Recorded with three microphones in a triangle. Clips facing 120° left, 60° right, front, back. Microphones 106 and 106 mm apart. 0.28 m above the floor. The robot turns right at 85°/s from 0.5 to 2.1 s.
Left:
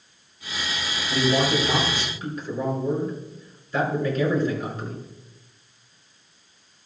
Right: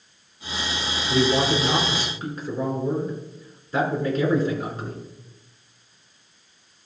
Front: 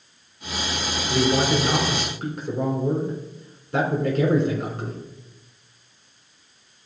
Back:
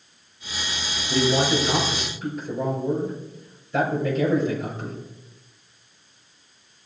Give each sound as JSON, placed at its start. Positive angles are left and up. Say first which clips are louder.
{"t": 1.1, "sound": "a man speaking", "louder": "right 1 dB, even", "azimuth_deg": -95, "distance_m": 4.0}